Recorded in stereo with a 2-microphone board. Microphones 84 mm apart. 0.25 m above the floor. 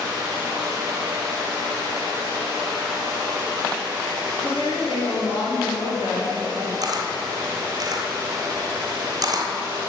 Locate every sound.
4.4 s a woman speaking: 65° left (ahead or behind), 3 m
6.8 s a camera shutter: 50° right (ahead or behind), 1.0 m